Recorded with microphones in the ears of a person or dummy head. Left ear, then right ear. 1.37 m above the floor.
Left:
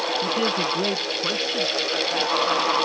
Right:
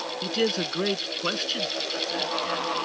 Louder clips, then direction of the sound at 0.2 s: Left 3 dB; 35° right (ahead or behind).